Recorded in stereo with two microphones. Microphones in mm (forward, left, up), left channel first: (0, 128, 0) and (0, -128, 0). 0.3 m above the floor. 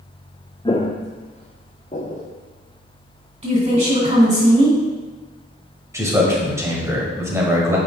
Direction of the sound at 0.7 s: 20° left (ahead or behind).